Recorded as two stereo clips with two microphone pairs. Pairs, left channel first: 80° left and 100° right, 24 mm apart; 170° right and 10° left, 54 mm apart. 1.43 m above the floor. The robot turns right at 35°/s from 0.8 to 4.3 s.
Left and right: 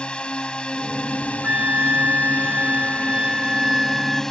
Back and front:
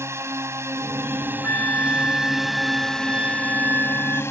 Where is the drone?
35° left; by 4.3 s 160° left.